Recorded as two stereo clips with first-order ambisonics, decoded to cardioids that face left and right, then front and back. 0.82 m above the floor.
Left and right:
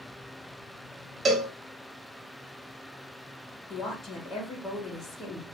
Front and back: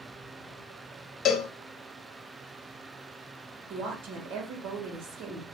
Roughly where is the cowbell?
Ahead right.